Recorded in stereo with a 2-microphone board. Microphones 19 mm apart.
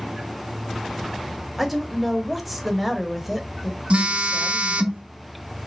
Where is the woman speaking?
5° right (ahead or behind), 1.0 m.